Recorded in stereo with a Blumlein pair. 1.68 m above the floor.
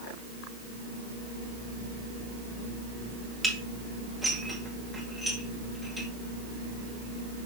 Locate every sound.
3.4 s dishes clattering: straight ahead, 2 m